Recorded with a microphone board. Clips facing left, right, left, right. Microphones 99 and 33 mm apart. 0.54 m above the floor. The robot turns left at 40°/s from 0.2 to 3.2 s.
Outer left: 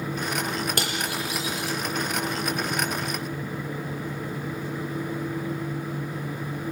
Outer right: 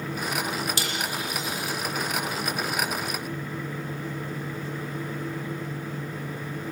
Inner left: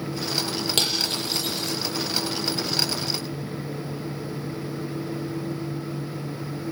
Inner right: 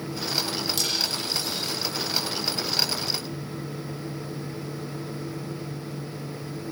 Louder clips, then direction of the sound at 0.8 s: Outer left 2 dB, inner left 3 dB; 50° left (ahead or behind).